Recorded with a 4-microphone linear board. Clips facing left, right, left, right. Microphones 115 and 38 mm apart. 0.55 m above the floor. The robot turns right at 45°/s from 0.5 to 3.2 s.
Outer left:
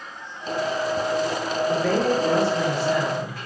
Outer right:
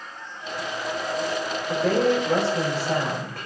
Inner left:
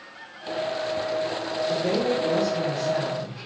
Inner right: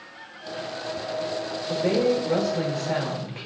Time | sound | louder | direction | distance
1.7 | a woman speaking | outer right 2 dB, inner right 3 dB | 175° left | 3 m